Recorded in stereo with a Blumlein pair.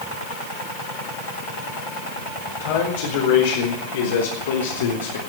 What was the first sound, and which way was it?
A man speaking, 55° left.